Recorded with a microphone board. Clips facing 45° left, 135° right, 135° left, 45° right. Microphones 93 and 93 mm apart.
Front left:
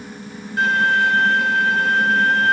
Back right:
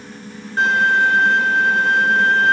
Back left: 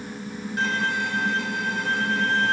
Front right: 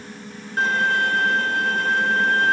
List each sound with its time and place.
0.6 s a violin: 85° right, 0.7 m